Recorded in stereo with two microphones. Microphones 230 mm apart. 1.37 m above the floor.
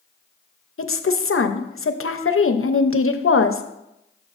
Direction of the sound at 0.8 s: 75° left (ahead or behind).